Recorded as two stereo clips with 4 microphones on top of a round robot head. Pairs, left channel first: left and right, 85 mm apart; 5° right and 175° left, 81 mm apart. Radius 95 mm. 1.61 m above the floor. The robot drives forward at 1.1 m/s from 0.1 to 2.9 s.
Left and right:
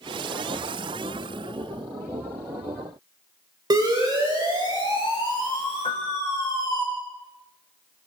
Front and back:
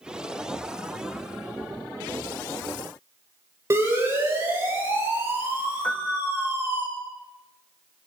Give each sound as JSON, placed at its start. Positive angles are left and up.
{"t": 3.7, "sound": "a siren", "azimuth_deg": -125, "distance_m": 8.0}
{"t": 5.8, "sound": "a piano", "azimuth_deg": 65, "distance_m": 1.4}